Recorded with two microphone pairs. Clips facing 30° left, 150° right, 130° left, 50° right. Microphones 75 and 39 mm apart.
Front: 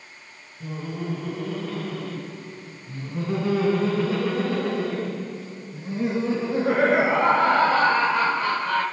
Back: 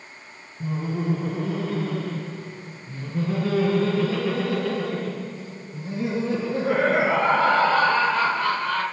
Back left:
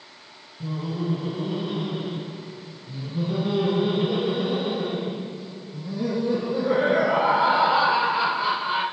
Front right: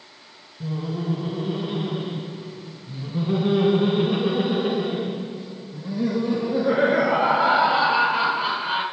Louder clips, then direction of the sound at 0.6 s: Back 4 dB, front right 1 dB; 135° right.